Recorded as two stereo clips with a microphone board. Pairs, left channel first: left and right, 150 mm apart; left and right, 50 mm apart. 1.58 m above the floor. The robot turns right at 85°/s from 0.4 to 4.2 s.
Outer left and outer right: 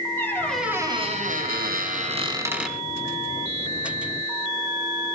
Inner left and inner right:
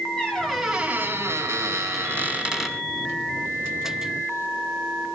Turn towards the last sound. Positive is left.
turn(degrees=130)